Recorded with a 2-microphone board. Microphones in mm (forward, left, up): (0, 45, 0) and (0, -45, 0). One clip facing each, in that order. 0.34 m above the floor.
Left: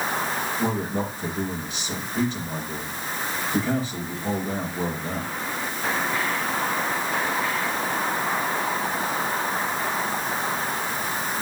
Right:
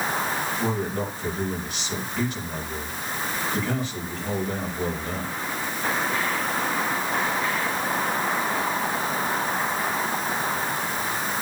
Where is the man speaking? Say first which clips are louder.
Left 1 dB; 35° left (ahead or behind), 6 m.